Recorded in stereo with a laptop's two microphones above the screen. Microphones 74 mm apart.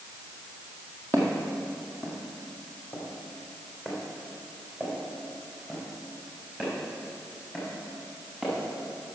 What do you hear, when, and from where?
1.1 s footsteps: 30° left (ahead or behind), 1.9 m; by 8.5 s 5° left (ahead or behind), 6 m